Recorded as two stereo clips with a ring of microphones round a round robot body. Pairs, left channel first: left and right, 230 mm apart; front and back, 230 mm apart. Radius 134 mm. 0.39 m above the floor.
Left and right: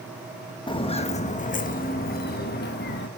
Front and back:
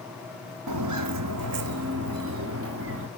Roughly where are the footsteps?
Behind.